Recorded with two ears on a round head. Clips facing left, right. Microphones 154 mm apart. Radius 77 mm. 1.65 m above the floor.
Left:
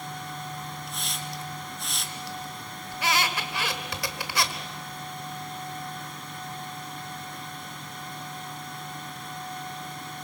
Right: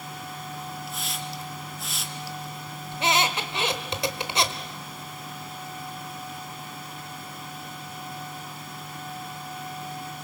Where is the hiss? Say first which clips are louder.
Right 2 dB; centre (ahead or behind), 1.6 m.